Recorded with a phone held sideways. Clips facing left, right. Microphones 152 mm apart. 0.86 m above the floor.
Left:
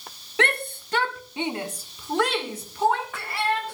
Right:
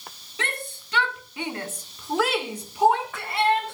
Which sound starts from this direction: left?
A shout, at 0.4 s.